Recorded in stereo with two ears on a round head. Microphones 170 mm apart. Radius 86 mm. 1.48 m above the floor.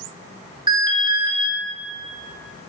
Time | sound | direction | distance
0.7 | an alarm | 25° right (ahead or behind) | 1.0 m